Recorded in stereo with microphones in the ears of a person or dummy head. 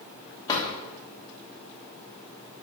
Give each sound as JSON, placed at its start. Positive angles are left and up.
{"t": 0.5, "sound": "a drawer", "side_deg": 20, "distance_m": 1.2}